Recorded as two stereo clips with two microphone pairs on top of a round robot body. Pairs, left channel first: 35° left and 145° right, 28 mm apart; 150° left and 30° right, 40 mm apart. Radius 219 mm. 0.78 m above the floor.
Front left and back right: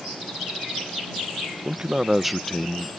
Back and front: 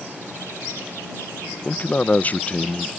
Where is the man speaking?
175° left; by 2.9 s 85° left.